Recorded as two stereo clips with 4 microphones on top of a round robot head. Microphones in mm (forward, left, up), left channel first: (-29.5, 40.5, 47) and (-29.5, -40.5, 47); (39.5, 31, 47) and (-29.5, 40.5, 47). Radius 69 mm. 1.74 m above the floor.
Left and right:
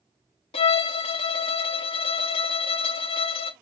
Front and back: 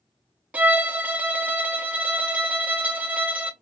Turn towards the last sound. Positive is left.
turn(degrees=105)